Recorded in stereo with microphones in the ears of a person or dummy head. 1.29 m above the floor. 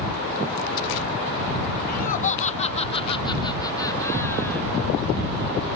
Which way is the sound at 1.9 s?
45° left (ahead or behind).